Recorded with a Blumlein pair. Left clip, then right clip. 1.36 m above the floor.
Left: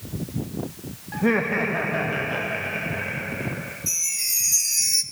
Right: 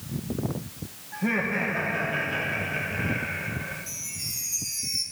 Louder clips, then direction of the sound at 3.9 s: Left 9 dB; 55° left.